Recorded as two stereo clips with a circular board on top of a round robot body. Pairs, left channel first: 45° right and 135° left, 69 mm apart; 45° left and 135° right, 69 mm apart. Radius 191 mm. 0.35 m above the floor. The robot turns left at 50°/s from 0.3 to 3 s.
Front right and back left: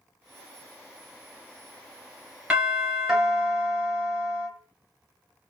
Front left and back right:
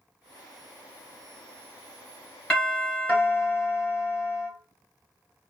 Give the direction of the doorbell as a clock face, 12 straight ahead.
9 o'clock.